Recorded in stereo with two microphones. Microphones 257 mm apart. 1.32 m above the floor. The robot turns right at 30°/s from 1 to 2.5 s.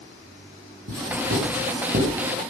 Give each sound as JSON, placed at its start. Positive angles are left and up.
{"t": 0.9, "sound": "writing", "side_deg": -65, "distance_m": 8.0}